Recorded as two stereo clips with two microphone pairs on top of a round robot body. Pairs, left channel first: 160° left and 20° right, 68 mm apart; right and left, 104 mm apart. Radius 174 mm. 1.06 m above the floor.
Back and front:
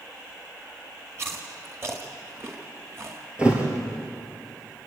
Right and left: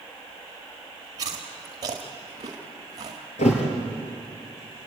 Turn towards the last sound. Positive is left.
turn(degrees=-90)